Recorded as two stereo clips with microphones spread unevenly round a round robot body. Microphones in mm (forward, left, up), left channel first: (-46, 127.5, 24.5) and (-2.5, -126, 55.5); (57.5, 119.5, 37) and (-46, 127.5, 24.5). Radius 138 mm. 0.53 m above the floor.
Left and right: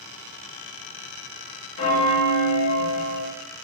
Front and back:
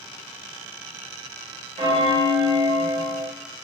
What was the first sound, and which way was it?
A bell, 145° left.